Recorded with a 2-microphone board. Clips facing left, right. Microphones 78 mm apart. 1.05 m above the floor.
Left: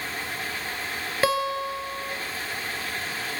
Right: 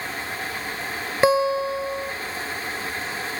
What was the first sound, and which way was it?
A guitar, 20° right (ahead or behind).